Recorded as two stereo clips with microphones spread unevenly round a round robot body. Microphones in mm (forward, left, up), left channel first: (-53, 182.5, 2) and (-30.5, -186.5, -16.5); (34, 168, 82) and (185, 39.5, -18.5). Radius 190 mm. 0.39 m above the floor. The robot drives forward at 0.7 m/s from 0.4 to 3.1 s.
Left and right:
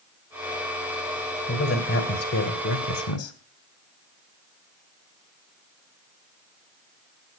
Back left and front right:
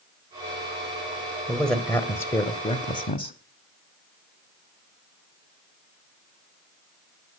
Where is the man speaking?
30° left, 2 m; by 3.4 s 70° left, 1.5 m.